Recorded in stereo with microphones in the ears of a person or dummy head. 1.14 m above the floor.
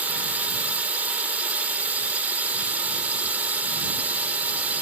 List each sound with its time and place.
0.0 s a drone: 10° right (ahead or behind)